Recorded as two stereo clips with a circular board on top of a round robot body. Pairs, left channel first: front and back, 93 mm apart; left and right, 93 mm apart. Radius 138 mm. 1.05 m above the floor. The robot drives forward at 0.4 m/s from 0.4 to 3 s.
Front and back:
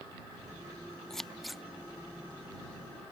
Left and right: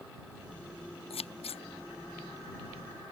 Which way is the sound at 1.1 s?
85° left.